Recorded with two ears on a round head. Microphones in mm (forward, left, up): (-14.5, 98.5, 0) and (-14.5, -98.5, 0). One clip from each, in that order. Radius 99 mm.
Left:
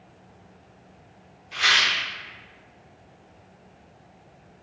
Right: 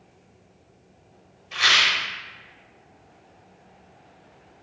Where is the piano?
I don't hear a piano.